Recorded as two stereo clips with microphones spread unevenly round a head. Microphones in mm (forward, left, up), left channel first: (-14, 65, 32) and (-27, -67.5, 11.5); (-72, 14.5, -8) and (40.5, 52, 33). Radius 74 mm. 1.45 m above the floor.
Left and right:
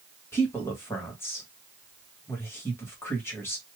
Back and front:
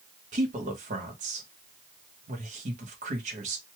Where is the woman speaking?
10° left, 1.3 m.